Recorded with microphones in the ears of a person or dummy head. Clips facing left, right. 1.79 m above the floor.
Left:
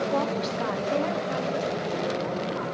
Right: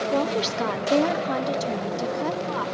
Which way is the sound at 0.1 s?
30° right (ahead or behind).